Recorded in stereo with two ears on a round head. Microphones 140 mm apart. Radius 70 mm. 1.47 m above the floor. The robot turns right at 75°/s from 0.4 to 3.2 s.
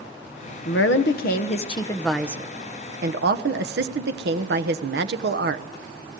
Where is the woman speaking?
65° left, 1.1 m; by 5.7 s 100° right, 1.1 m.